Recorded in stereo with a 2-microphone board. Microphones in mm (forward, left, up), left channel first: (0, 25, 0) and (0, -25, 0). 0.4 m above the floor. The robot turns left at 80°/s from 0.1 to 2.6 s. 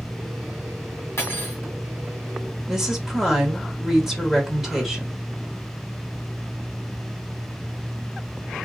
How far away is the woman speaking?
About 1.2 m.